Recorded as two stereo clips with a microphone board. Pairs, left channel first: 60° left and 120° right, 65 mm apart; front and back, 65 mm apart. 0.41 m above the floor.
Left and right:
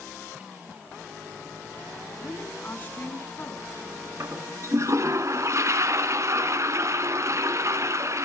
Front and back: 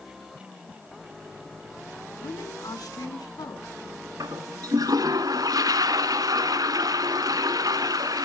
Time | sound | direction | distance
2.2 | a woman speaking | straight ahead | 3.5 m
4.2 | a toilet flushing | 160° right | 1.4 m